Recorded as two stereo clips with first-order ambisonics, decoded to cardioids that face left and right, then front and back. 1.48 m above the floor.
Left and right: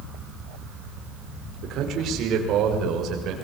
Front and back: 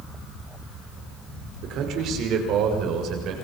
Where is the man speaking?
135° right, 5 m; by 3.4 s 140° right, 6.5 m.